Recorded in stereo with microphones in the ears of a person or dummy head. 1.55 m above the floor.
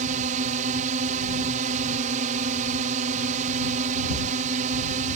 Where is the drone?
40° right (ahead or behind).